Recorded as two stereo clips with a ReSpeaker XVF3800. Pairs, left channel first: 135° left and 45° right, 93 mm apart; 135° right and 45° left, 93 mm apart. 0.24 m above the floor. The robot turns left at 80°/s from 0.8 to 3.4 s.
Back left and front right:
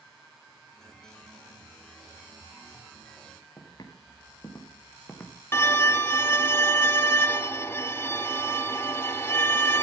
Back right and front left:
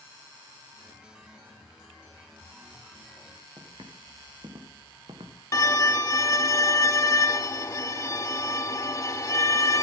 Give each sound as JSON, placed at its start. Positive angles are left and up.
{"t": 3.6, "sound": "footsteps", "azimuth_deg": 90, "distance_m": 3.5}
{"t": 5.5, "sound": "a violin", "azimuth_deg": -175, "distance_m": 0.7}